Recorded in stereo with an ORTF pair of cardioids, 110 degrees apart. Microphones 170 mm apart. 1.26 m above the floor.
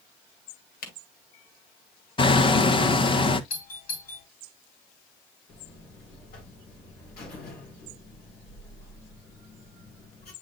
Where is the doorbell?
60° left, 4.5 m.